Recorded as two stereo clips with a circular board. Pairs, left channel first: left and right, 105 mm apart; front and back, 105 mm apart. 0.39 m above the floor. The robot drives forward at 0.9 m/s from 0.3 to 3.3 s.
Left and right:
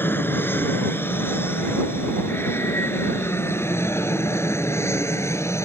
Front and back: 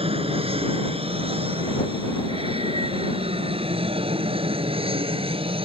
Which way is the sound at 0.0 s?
160° left.